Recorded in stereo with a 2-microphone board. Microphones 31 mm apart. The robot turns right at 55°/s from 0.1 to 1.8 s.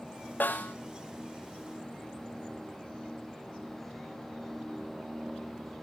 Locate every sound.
0.4 s a snare drum: 75° left (ahead or behind), 3 m; by 0.8 s 55° left (ahead or behind), 3 m